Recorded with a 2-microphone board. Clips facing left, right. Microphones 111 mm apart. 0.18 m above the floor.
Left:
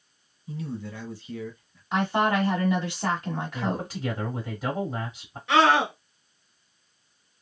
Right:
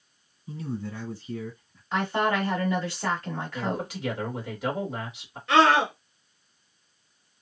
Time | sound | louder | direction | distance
0.5 | a man speaking | right 1 dB | 25° right (ahead or behind) | 1.6 m
1.9 | a woman speaking | left 2 dB | 15° left (ahead or behind) | 1.6 m
3.5 | a man speaking | right 2 dB | 35° left (ahead or behind) | 1.8 m
5.5 | a scream | even | 5° left (ahead or behind) | 1.7 m